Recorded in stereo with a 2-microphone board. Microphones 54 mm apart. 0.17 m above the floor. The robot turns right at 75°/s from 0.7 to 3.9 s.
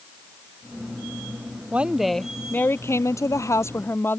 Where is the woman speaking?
30° right; by 4.2 s 135° left.